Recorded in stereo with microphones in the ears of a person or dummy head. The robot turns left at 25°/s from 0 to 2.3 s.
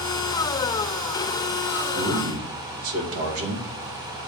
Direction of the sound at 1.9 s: 75° right (ahead or behind).